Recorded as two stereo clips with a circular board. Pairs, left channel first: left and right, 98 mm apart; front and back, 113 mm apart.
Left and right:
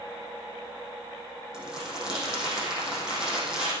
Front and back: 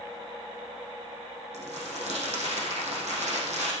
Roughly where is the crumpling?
Behind.